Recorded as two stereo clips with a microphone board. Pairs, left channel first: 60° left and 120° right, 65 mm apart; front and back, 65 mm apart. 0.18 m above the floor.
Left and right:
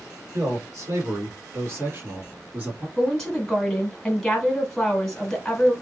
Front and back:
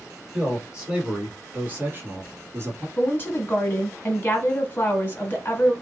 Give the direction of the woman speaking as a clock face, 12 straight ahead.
1 o'clock.